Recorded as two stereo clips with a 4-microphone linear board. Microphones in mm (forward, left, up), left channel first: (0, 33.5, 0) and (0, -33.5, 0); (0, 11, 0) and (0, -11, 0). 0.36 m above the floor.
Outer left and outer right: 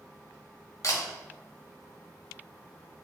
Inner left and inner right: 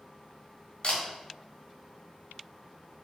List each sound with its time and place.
0.8 s a camera shutter: 50° left (ahead or behind), 2.0 m